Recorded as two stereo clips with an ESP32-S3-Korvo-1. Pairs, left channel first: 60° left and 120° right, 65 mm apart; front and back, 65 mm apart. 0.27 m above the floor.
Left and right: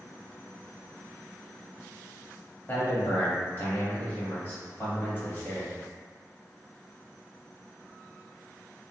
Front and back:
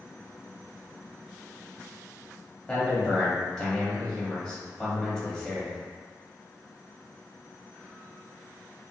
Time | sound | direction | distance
2.7 | a man speaking | 70° left | 1.2 m